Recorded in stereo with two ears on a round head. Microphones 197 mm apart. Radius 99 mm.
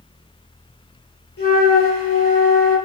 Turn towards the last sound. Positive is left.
turn(degrees=65)  # may be behind; listen again after turning